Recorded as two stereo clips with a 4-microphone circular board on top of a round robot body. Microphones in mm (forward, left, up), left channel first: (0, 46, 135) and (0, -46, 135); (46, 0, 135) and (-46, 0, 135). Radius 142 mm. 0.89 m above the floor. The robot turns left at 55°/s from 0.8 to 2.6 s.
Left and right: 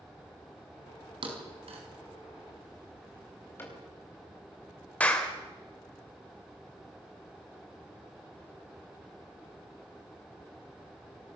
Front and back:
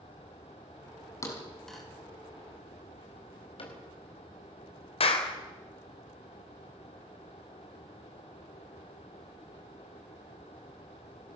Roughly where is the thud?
Ahead right.